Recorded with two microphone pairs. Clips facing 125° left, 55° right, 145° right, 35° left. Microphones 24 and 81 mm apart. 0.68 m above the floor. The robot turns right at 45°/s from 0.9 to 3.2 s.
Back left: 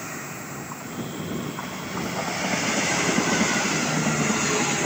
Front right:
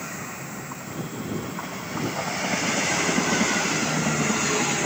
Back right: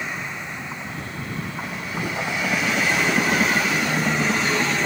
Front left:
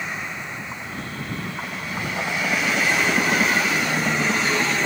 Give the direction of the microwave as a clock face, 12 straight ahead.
2 o'clock.